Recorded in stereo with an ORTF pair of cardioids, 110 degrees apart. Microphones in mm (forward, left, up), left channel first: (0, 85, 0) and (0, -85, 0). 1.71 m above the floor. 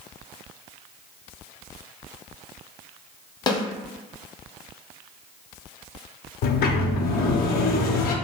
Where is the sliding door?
60° left, 0.5 m.